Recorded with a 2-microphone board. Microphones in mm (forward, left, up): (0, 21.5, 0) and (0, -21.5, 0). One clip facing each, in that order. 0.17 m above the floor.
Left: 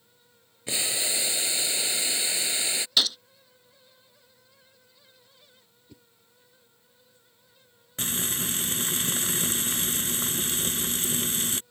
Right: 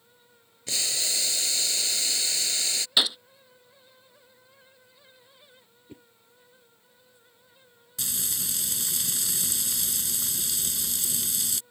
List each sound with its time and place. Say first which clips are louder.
0.7 s boiling: left 1 dB; 20° left (ahead or behind)
3.0 s a gunshot: right 1 dB; 20° right (ahead or behind)
5.9 s a whoosh: right 6 dB; 35° right (ahead or behind)
8.0 s frying: left 5 dB; 40° left (ahead or behind)